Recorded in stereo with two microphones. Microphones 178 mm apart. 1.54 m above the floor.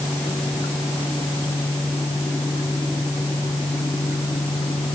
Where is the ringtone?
No ringtone in this recording.